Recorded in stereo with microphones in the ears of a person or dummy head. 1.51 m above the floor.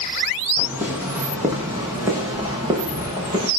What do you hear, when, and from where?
0.6 s footsteps: 10° right (ahead or behind), 4 m; by 3.5 s 20° right (ahead or behind), 7 m